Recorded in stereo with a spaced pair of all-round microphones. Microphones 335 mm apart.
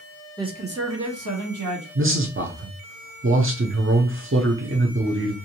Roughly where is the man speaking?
Right.